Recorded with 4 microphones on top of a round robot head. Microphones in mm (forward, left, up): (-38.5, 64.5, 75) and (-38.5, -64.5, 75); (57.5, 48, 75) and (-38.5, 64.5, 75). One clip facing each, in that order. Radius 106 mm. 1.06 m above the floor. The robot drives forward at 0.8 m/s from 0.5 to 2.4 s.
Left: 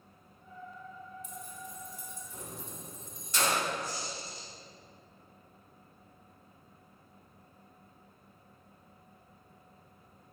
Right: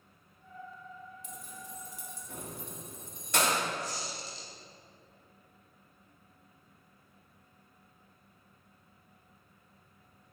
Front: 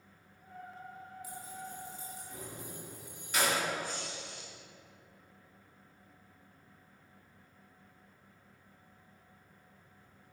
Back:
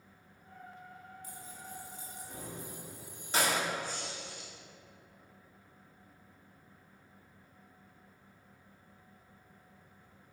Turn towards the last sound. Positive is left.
turn(degrees=-95)